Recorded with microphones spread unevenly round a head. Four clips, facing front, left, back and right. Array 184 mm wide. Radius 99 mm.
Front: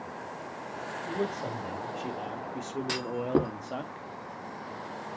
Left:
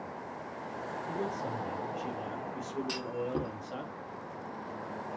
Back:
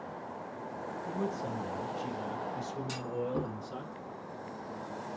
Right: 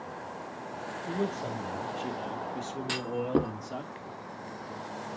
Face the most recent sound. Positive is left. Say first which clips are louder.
# right 8 dB, front 8 dB
turn(degrees=-35)